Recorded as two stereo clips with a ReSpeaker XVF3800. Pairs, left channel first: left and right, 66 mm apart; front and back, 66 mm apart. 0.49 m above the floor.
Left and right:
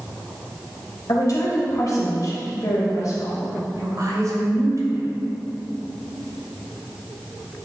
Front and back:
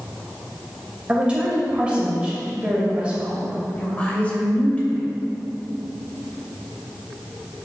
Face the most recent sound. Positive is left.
turn(degrees=-70)